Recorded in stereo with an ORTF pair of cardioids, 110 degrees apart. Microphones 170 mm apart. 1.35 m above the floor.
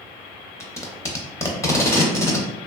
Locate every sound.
0.6 s tape being pulled: 15° left, 0.7 m